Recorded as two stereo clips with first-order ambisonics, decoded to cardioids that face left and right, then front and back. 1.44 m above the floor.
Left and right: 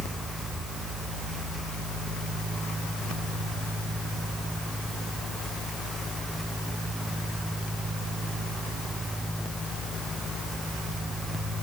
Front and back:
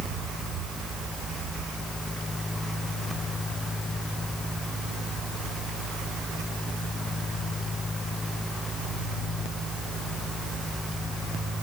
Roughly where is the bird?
I don't hear a bird.